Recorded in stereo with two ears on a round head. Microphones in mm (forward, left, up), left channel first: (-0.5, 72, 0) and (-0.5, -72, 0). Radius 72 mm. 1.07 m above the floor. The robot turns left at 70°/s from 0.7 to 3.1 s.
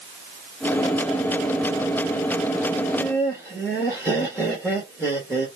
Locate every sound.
2.8 s laughter: 15° right (ahead or behind), 1.6 m; by 5.5 s 10° left (ahead or behind), 1.6 m